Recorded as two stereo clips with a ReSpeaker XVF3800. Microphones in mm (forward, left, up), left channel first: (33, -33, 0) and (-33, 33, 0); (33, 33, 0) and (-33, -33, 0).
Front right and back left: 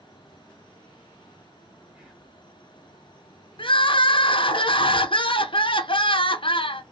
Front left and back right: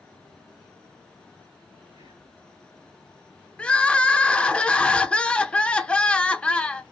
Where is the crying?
35° right, 0.6 m.